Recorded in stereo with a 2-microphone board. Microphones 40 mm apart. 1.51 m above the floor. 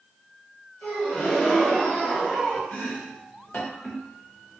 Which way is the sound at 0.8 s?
40° left (ahead or behind).